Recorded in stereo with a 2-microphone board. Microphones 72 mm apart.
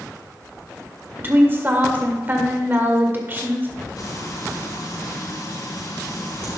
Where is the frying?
65° left (ahead or behind), 4.5 m.